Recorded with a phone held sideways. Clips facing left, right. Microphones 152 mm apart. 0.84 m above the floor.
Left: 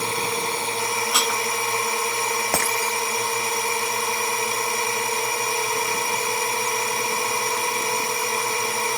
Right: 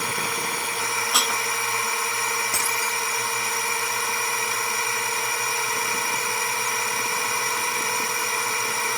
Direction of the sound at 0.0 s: 25° left (ahead or behind).